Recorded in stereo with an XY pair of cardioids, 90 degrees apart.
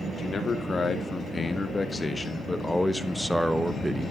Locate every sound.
0.2 s a man speaking: 45° left, 3 m; by 4.1 s 30° right, 1.1 m